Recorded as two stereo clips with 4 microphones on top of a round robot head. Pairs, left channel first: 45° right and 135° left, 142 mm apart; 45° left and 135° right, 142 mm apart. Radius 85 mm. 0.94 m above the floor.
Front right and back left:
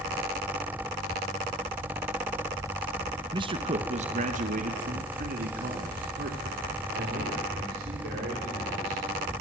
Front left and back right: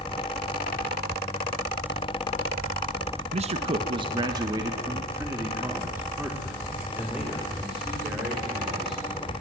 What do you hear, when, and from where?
3.3 s a man speaking: 170° right, 1.3 m; by 9.3 s 135° left, 5.5 m